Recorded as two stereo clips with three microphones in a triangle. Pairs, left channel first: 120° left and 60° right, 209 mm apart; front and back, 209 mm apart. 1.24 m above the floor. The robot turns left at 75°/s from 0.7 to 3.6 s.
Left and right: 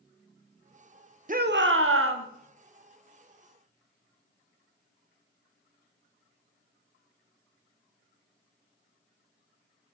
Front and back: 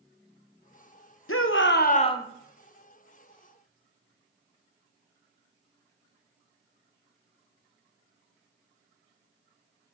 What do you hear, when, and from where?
1.3 s a shout: 5° right, 0.6 m; by 2.2 s 80° right, 0.6 m